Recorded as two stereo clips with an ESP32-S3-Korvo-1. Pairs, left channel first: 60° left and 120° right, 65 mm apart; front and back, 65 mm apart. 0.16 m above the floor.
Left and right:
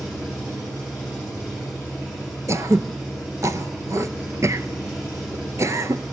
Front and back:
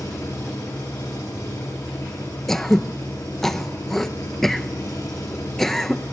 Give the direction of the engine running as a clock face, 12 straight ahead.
2 o'clock.